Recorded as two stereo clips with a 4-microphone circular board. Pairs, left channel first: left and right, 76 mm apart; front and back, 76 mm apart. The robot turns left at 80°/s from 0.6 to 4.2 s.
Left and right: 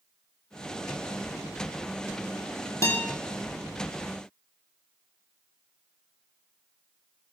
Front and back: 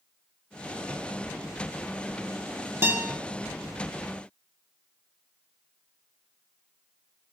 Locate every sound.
2.8 s a guitar: 130° left, 0.6 m; by 3.0 s 110° left, 0.6 m